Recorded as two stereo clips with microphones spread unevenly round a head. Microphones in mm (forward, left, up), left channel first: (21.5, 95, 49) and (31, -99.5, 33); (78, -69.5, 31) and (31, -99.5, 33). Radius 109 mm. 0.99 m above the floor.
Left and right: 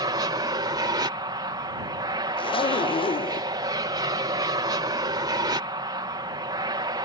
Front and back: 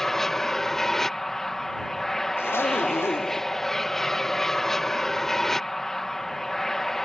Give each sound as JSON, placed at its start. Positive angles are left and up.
{"t": 0.0, "sound": "an aircraft", "azimuth_deg": -45}
{"t": 2.4, "sound": "a zipper", "azimuth_deg": 35}